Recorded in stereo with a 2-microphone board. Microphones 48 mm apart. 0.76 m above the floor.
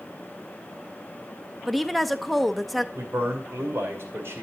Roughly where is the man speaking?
Right.